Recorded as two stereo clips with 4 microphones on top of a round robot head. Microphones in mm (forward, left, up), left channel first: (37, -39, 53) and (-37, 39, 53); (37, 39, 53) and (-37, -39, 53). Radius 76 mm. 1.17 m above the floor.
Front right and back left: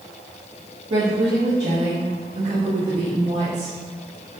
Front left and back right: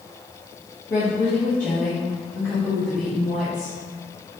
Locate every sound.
0.9 s a woman speaking: 105° left, 1.5 m; by 3.8 s 140° left, 3.5 m